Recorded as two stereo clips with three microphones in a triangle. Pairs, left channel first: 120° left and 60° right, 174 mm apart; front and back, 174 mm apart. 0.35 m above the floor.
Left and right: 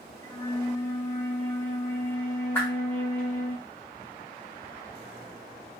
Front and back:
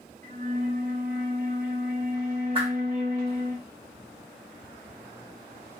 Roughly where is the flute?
Behind.